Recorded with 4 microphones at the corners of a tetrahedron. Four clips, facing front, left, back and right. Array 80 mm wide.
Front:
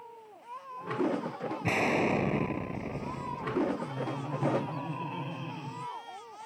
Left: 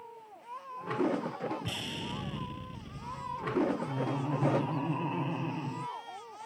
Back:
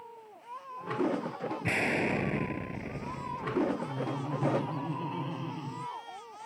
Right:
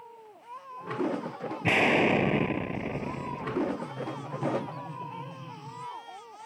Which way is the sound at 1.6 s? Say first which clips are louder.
Right 16 dB, front 2 dB; 80° right.